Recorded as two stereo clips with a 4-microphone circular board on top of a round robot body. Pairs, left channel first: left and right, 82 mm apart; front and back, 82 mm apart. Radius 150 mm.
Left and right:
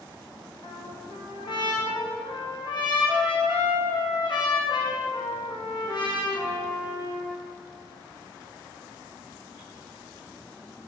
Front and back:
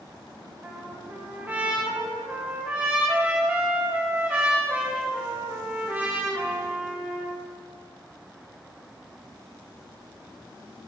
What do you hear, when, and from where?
0.6 s a trumpet: 110° left, 4 m